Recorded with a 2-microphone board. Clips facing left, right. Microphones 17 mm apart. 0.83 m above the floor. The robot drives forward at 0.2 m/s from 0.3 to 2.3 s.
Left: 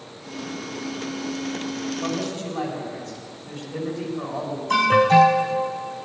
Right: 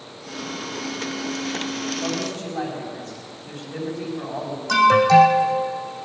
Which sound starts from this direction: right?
An alarm, at 4.7 s.